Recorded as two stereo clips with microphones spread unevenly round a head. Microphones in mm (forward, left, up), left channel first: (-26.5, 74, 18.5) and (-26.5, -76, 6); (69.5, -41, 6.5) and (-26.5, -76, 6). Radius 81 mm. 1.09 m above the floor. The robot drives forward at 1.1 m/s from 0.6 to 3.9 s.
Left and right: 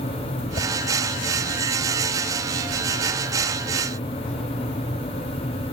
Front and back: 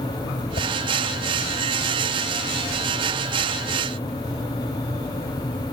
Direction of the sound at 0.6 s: 35° left.